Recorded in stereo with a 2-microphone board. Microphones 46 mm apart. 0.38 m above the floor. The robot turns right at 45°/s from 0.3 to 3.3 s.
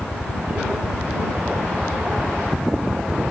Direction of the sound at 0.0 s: 90° left.